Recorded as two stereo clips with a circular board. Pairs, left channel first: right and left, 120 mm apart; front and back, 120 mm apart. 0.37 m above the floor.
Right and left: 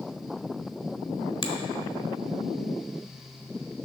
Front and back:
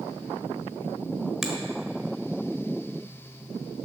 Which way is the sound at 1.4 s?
95° right.